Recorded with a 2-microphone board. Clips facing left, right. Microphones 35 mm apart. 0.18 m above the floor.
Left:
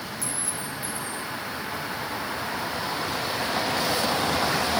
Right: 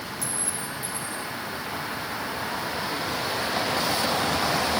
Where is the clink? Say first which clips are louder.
Even; 60° right (ahead or behind), 3 m.